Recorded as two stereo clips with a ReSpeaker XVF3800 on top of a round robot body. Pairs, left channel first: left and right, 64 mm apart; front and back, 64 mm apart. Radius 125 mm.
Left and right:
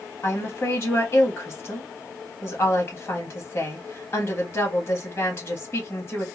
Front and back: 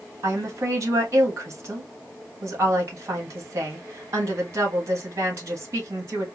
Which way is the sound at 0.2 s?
135° left.